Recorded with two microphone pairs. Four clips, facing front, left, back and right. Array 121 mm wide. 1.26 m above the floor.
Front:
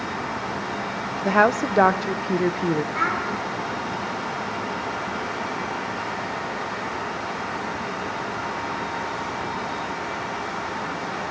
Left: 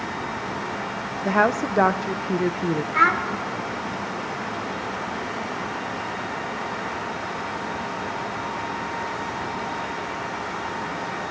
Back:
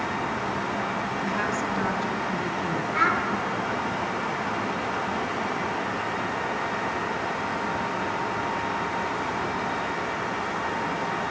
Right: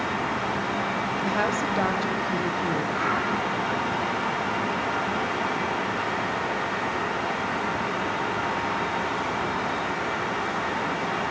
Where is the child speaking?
95° left, 2 m.